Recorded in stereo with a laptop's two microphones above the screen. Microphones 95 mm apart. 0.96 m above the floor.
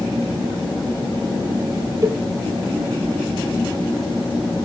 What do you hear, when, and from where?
2.0 s a cowbell: 35° right (ahead or behind), 1.3 m